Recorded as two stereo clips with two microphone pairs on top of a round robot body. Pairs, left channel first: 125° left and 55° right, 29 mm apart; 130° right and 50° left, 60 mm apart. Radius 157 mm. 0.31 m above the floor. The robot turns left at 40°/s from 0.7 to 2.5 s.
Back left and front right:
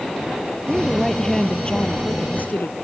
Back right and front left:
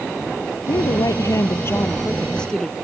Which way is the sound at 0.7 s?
135° right.